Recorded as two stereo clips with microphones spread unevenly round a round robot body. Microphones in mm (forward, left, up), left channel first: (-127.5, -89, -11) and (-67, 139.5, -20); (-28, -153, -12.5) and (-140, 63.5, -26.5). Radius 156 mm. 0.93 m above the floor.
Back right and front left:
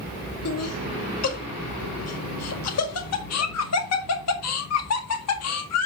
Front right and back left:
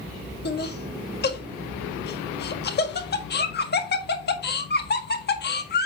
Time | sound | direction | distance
0.5 | laughter | 110° right | 1.8 m